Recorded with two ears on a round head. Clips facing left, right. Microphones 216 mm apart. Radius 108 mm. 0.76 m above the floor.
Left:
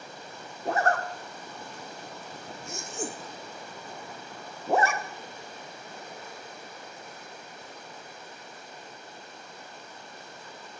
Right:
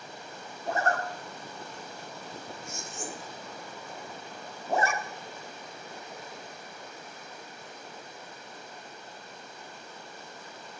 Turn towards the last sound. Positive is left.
turn(degrees=50)  # may be behind; listen again after turning